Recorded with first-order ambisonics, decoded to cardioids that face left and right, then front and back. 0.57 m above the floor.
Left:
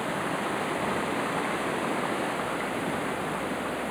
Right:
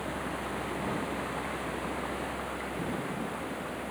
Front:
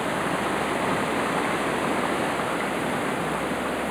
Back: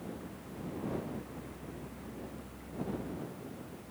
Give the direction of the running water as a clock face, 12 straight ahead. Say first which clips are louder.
Left 6 dB, front 22 dB; 11 o'clock.